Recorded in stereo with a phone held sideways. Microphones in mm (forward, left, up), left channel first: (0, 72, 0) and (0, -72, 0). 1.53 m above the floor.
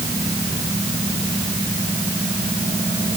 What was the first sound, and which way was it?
Only background noise.